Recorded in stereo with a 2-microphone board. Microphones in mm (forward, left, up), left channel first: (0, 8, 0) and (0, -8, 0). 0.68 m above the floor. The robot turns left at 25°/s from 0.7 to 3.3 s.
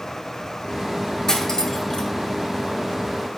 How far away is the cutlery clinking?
About 1.2 m.